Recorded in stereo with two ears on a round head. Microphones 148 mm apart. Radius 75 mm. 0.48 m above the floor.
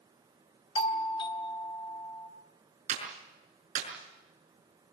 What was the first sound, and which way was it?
A doorbell, 30° left (ahead or behind).